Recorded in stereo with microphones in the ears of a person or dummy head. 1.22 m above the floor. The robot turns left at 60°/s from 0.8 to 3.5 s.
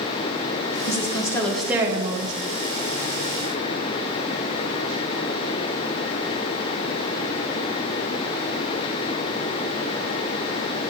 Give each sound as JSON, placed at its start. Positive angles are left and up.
{"t": 0.9, "sound": "a woman speaking", "azimuth_deg": 40, "distance_m": 1.3}